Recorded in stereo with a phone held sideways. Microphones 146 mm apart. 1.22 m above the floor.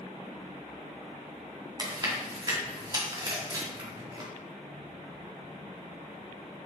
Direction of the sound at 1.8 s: 35° right (ahead or behind).